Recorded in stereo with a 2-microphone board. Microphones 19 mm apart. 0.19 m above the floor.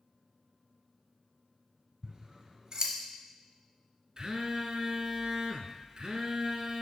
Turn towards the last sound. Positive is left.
turn(degrees=-35)  # may be behind; listen again after turning